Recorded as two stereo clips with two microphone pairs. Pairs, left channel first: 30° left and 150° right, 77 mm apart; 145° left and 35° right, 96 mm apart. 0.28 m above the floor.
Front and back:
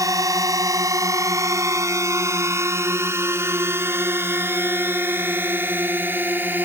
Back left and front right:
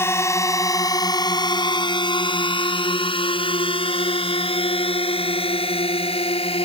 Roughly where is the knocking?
I don't hear knocking.